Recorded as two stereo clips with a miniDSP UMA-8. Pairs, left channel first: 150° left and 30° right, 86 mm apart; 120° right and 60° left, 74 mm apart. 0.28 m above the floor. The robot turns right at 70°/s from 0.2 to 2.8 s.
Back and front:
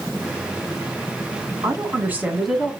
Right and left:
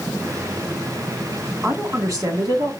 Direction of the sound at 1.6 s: Straight ahead.